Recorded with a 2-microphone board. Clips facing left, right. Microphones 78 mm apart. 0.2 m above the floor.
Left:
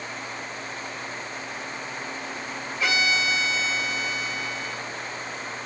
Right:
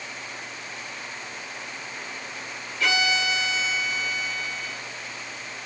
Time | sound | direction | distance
2.8 | a violin | 20° left (ahead or behind) | 3 m